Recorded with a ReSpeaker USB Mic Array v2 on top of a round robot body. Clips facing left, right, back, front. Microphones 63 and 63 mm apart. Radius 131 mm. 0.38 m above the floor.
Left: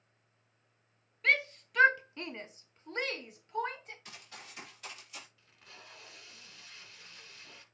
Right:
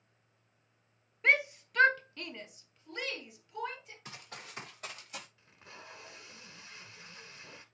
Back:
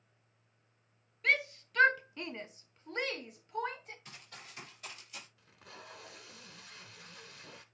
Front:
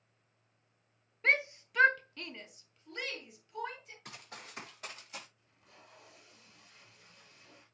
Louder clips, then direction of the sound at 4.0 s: Right 3 dB, front 3 dB; 35° right.